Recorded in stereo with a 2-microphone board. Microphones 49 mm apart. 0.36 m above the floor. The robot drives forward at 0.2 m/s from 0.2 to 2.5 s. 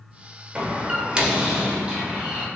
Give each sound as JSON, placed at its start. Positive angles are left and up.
{"t": 0.6, "sound": "a door slam", "side_deg": -20, "distance_m": 0.6}